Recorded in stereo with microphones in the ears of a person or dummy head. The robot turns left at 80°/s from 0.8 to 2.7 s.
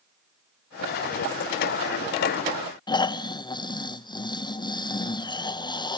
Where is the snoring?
25° left (ahead or behind), 0.6 m.